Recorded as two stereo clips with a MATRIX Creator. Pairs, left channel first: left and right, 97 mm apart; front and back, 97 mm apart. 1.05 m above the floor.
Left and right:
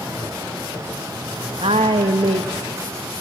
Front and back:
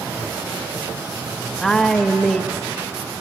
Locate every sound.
1.6 s a woman speaking: 85° right, 0.9 m